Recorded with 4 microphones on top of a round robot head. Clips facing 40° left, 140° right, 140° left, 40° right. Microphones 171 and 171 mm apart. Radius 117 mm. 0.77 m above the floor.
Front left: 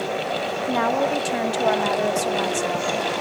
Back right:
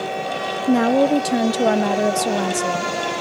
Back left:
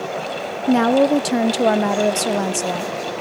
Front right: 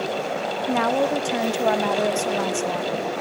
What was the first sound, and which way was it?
A woman speaking, 175° right.